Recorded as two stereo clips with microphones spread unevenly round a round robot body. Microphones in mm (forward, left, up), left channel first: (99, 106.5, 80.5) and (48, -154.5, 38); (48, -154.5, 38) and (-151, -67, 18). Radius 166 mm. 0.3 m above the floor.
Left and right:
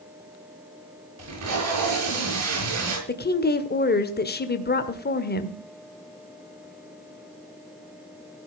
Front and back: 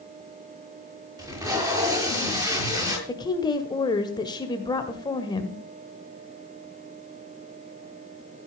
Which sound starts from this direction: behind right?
Tape being pulled, at 1.2 s.